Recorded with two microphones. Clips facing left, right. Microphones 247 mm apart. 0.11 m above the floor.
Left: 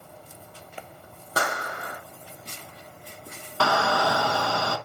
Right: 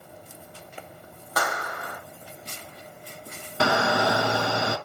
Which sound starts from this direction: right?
A shout, at 3.6 s.